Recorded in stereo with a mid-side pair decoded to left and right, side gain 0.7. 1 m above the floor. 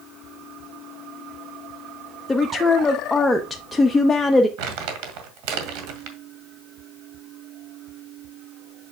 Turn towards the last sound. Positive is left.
turn(degrees=-70)